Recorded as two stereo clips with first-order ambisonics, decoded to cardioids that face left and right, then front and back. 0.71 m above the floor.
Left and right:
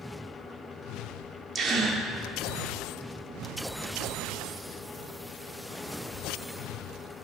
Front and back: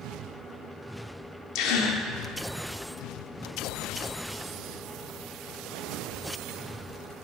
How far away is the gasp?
About 0.7 m.